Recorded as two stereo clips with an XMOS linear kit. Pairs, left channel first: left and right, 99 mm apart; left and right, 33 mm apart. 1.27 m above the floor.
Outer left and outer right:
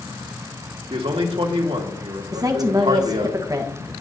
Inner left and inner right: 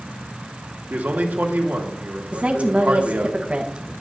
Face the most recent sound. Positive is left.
turn(degrees=-40)  # may be behind; listen again after turning